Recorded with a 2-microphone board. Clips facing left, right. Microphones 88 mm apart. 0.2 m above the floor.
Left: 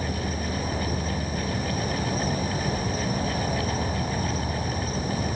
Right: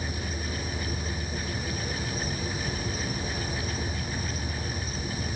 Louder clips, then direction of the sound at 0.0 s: Left 5 dB; 45° left (ahead or behind).